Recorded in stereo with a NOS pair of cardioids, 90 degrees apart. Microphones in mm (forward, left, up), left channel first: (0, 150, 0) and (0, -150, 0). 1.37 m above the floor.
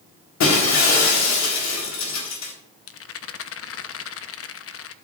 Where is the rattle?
50° left, 0.9 m.